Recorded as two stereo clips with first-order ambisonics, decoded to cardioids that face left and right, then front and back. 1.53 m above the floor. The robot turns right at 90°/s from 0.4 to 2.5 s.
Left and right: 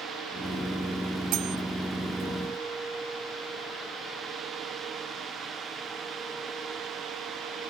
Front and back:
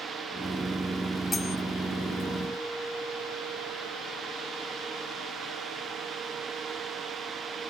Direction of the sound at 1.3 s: 75° right.